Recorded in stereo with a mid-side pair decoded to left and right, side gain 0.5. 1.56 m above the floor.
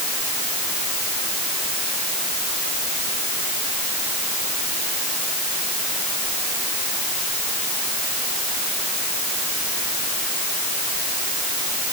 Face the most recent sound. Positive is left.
No sound to turn to.